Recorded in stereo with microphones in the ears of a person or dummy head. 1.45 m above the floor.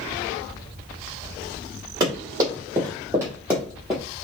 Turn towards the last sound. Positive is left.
turn(degrees=-5)  # may be behind; listen again after turning